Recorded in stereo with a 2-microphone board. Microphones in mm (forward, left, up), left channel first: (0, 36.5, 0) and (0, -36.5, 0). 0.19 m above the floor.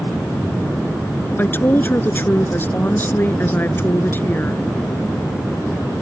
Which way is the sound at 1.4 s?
30° left (ahead or behind).